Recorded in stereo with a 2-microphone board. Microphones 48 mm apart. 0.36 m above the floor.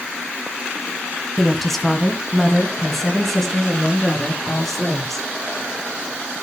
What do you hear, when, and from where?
1.4 s a woman speaking: 5° left (ahead or behind), 2.5 m